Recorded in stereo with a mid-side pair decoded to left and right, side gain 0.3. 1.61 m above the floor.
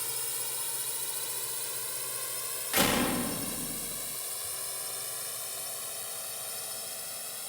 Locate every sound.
0.0 s a drone: 5° left; by 7.5 s 20° left
2.7 s a door slam: 10° left